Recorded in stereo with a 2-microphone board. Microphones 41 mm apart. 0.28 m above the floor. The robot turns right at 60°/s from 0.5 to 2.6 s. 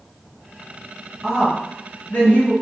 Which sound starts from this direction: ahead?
A woman speaking, at 1.2 s.